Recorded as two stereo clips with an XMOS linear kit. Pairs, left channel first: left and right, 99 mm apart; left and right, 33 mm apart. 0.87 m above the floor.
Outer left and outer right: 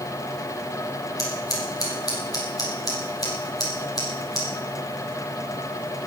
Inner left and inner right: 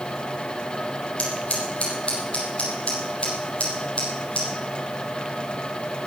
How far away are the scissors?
About 5 m.